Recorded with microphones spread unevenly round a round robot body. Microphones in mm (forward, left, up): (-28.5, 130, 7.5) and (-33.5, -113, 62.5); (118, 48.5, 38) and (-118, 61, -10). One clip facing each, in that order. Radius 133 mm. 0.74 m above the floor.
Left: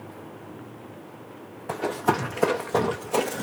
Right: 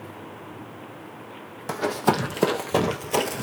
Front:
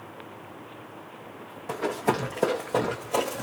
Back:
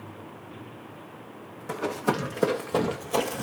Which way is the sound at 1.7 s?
100° right.